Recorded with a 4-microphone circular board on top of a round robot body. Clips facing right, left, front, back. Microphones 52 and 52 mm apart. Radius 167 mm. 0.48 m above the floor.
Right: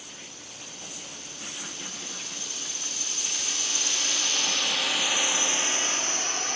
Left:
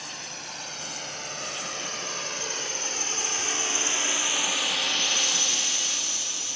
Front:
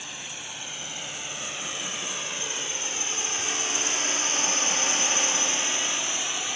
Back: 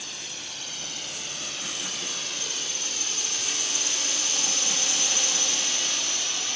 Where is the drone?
70° left; by 6.6 s 70° right.